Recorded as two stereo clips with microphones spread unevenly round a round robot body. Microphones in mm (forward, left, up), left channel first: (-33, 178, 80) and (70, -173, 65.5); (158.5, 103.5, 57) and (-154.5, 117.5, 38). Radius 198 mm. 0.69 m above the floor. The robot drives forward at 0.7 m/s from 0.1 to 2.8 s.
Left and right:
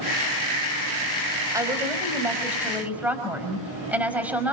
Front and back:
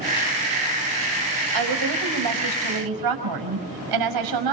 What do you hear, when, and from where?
1.5 s a woman speaking: 155° right, 4 m; by 4.5 s 160° right, 4.5 m